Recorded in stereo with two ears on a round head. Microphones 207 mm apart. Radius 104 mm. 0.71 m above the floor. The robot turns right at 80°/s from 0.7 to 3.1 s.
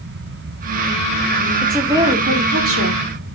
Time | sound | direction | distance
1.6 | a woman speaking | 170° left | 2 m